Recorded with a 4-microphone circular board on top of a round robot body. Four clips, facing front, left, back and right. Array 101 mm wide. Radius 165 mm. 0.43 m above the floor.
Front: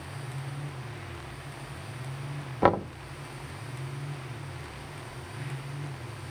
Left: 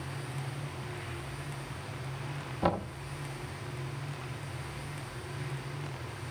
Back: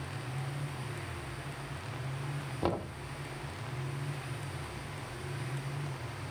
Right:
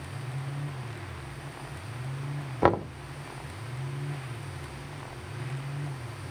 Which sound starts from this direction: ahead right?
Knocking, at 2.6 s.